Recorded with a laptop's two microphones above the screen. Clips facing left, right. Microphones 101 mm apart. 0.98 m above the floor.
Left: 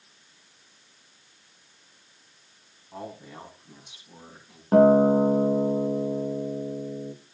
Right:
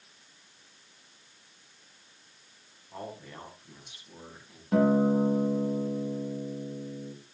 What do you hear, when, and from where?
2.9 s a man speaking: 10° left (ahead or behind), 7.5 m; by 4.6 s 20° left (ahead or behind), 7 m
4.7 s a guitar: 45° left (ahead or behind), 1.3 m